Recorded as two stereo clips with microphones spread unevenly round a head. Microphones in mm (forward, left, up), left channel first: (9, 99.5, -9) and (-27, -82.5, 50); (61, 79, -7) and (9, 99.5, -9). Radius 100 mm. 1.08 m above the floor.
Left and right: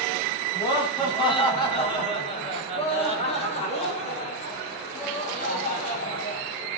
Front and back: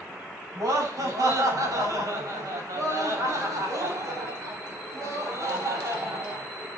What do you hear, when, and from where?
0.6 s laughter: 145° left, 7.5 m; by 6.5 s 125° left, 9 m